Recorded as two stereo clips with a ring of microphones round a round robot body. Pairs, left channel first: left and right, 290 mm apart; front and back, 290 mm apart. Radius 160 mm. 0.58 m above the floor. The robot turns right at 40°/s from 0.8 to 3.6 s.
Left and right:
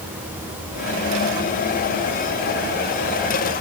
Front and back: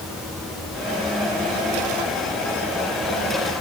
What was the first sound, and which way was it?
Only background noise.